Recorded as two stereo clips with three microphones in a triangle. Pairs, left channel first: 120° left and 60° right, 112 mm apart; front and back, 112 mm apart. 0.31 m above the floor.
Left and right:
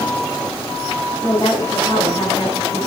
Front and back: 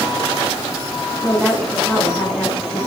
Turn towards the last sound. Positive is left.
turn(degrees=70)